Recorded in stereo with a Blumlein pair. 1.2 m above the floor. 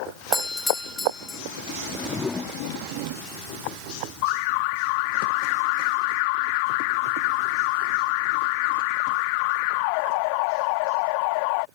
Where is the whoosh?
15° left.